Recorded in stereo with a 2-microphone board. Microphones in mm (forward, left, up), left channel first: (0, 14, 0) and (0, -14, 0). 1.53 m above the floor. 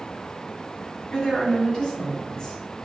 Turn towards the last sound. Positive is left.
turn(degrees=25)  # may be behind; listen again after turning